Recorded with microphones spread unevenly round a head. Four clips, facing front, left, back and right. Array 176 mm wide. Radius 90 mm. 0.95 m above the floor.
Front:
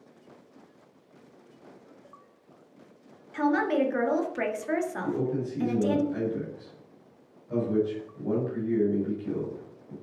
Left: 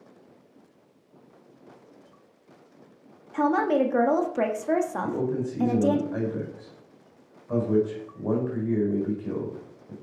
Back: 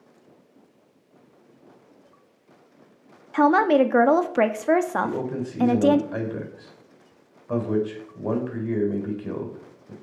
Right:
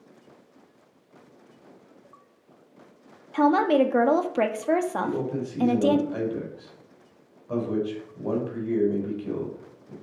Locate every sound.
3.3 s a woman speaking: 165° right, 1.6 m
5.0 s a man speaking: 170° right, 5.5 m